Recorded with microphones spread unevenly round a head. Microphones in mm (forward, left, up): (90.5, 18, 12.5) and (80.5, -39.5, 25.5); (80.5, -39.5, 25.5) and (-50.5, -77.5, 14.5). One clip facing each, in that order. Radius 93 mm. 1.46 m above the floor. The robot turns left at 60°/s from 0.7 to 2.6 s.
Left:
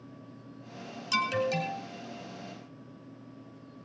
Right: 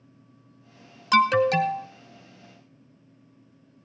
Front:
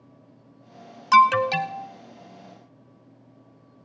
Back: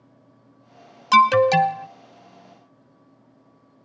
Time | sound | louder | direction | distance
1.1 | an alarm | right 10 dB, back 3 dB | 95° right | 0.8 m